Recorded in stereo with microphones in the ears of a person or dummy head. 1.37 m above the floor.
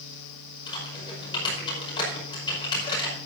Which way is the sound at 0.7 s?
30° left (ahead or behind).